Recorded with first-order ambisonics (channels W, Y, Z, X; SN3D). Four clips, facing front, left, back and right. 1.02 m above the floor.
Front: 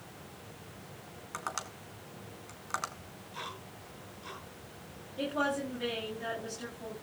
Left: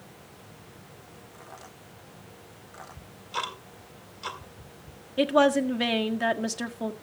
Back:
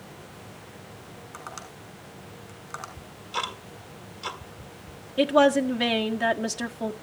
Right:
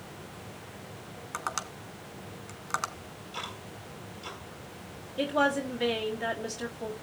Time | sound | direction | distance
1.3 | tapping | 75° right | 2 m
3.0 | ticking | 145° left | 1.9 m
5.2 | a woman speaking | 140° left | 1.6 m